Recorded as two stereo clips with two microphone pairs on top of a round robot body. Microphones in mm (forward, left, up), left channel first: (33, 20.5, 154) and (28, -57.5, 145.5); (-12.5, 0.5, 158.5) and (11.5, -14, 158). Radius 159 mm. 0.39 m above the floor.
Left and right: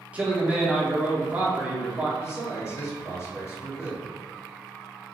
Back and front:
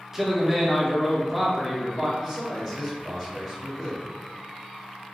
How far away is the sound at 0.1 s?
About 0.9 m.